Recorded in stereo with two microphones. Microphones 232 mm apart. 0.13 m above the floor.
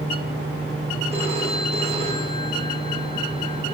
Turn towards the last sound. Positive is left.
turn(degrees=-25)  # may be behind; listen again after turning